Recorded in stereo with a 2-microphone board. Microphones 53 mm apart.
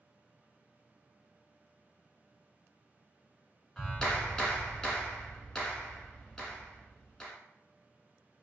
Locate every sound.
3.8 s a clap: 10° left (ahead or behind), 1.2 m